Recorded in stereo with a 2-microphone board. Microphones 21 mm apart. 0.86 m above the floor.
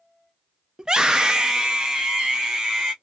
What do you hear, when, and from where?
0.8 s a scream: 30° right (ahead or behind), 0.5 m; by 2.9 s 35° right (ahead or behind), 1.7 m